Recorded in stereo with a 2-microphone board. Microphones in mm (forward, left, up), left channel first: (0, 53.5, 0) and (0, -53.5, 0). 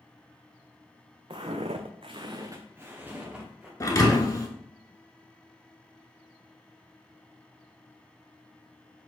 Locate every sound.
1.3 s footsteps: 55° right (ahead or behind), 0.7 m; by 3.7 s 10° right (ahead or behind), 1.6 m
3.8 s a thud: 35° left (ahead or behind), 0.6 m